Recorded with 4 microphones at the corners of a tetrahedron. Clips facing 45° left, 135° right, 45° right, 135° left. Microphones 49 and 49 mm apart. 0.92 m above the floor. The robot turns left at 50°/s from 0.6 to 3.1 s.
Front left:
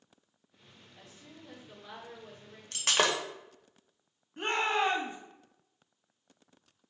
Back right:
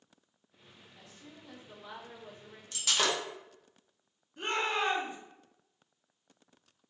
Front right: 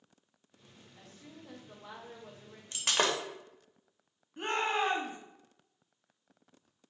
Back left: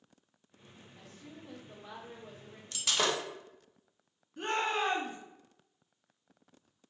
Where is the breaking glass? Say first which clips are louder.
Front left 3 dB, front right 1 dB; 10° left, 0.6 m; by 3.2 s 10° right, 0.6 m.